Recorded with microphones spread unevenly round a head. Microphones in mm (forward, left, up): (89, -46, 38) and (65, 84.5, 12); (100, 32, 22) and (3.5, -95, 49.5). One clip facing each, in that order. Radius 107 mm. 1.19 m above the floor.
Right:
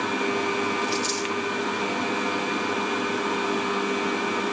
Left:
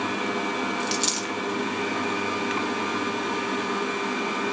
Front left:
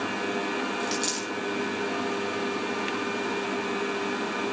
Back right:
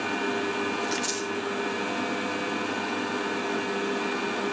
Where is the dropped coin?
115° left, 4 m.